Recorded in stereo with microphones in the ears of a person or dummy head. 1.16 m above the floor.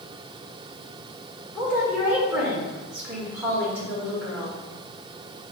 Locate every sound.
1.6 s a woman speaking: 5° right (ahead or behind), 1.4 m